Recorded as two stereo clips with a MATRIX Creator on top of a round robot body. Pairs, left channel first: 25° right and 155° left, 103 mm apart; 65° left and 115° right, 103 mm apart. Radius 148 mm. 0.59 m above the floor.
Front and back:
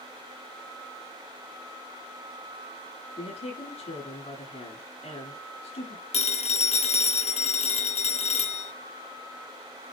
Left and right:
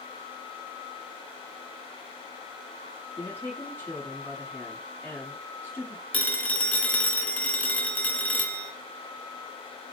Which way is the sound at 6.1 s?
10° right.